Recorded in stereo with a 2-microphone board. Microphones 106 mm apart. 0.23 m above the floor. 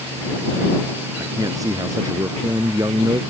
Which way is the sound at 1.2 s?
35° right (ahead or behind).